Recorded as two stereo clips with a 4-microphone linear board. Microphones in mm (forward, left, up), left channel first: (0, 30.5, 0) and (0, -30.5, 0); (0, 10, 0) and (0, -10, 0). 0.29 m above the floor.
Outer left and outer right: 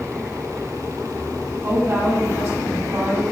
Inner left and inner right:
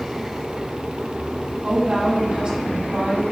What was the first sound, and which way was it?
A woman speaking, 50° right (ahead or behind).